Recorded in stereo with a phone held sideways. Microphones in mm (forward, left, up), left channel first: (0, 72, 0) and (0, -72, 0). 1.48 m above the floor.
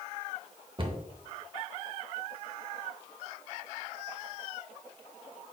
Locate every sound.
0.8 s a cupboard door: 35° right (ahead or behind), 0.7 m